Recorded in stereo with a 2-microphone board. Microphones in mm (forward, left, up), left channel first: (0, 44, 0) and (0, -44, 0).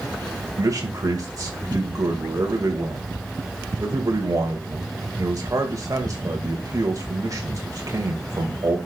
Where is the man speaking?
40° right (ahead or behind), 2 m.